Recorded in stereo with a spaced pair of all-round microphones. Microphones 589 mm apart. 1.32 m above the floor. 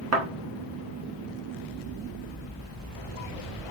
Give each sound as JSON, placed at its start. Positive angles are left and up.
{"t": 0.1, "sound": "a thud", "side_deg": -25, "distance_m": 0.7}